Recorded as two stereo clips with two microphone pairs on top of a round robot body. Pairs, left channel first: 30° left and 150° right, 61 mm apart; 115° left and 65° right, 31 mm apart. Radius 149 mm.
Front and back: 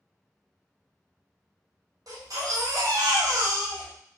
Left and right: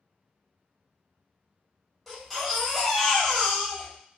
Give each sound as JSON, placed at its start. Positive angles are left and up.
{"t": 2.1, "sound": "a baby crying", "azimuth_deg": -135, "distance_m": 1.4}